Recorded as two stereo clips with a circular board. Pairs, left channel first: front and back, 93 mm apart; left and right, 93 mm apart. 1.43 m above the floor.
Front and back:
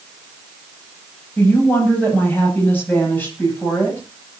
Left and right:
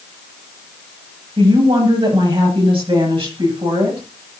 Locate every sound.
1.4 s a woman speaking: 70° right, 9.5 m